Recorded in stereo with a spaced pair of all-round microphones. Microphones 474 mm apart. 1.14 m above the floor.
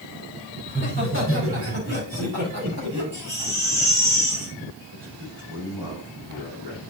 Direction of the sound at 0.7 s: 25° right (ahead or behind).